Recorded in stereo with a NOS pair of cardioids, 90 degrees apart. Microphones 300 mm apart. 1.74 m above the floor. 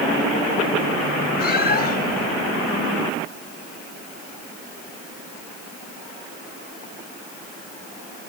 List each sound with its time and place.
1.4 s a cat meowing: 35° left